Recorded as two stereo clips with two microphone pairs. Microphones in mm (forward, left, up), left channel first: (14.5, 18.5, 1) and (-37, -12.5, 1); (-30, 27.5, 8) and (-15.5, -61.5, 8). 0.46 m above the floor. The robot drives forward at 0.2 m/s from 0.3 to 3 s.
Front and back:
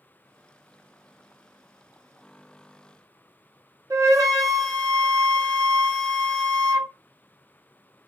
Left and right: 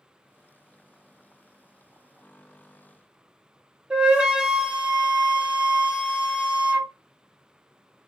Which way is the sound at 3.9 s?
160° right.